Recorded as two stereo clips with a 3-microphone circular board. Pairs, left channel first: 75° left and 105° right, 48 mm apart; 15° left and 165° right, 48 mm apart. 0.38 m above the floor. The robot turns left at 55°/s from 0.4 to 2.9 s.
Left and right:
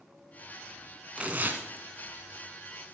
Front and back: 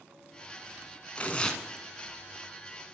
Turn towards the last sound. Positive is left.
turn(degrees=-135)